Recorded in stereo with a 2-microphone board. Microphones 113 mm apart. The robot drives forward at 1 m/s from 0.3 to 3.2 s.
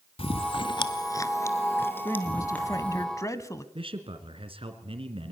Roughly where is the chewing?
Left.